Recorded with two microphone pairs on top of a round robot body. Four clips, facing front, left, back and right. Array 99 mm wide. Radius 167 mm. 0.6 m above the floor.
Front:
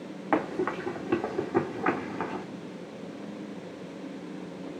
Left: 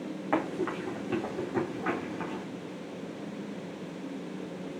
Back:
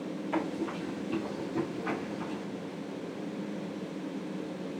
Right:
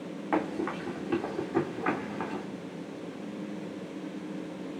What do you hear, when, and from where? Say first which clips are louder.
0.3 s running footsteps: even, front 6 dB; 5° right, 3.5 m; by 2.5 s 20° right, 3 m